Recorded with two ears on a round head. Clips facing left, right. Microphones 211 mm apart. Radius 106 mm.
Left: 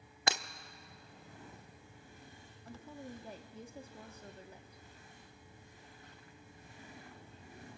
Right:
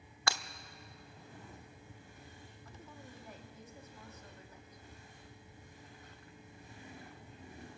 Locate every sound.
0.3 s breaking glass: 20° left (ahead or behind), 0.5 m
2.6 s a woman speaking: 30° left (ahead or behind), 1.1 m